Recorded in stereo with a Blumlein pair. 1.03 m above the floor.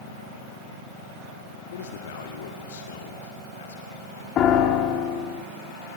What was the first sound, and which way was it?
A man speaking, 60° left.